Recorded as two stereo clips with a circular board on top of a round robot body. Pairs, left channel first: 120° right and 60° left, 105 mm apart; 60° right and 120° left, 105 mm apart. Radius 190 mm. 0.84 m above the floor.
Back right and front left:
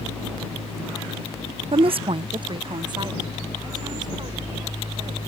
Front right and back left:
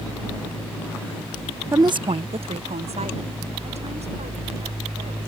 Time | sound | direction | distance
1.7 | a woman speaking | 60° left | ?